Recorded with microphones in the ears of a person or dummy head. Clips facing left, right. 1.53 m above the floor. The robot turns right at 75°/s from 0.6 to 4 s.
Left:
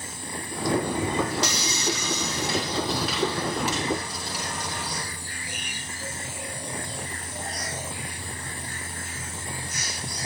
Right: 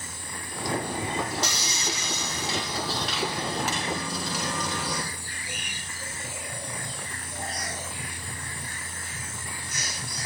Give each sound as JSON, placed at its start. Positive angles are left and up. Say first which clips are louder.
{"t": 1.4, "sound": "sawing", "louder": "left 4 dB", "azimuth_deg": 55, "distance_m": 1.6}